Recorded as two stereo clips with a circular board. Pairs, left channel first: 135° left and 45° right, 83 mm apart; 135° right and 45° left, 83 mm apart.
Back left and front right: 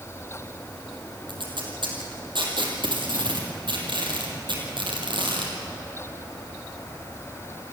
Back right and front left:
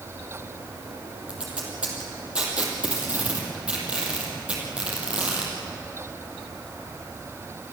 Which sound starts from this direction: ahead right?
Tape being pulled, at 1.3 s.